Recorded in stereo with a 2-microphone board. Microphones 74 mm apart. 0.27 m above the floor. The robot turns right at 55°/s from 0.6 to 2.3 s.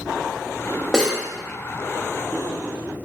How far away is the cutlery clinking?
About 0.6 m.